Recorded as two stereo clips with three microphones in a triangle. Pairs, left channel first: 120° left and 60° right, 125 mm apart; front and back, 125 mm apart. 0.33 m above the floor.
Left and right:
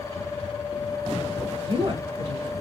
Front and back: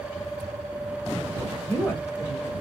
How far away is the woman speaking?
About 1.1 m.